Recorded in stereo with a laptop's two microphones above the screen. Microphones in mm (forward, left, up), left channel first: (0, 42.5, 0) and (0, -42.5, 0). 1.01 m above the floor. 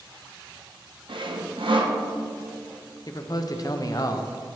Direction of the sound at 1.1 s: 65° right (ahead or behind).